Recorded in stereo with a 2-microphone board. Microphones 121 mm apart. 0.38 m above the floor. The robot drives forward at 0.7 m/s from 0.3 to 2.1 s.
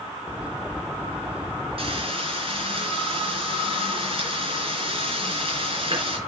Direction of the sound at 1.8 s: 50° right (ahead or behind).